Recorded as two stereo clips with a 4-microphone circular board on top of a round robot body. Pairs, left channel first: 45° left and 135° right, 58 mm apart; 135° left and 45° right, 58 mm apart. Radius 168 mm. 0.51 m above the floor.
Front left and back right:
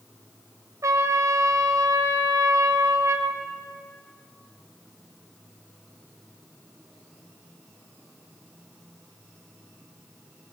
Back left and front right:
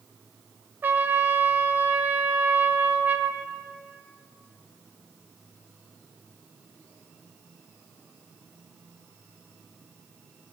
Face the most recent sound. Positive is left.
turn(degrees=-100)